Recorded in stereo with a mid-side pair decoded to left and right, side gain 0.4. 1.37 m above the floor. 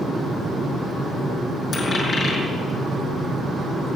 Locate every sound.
1.7 s a dropped coin: 45° left, 6.5 m